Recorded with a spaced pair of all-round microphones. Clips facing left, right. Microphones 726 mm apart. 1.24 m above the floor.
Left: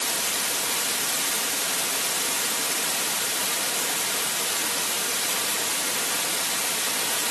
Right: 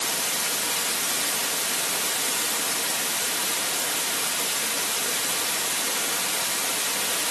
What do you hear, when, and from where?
Only background noise.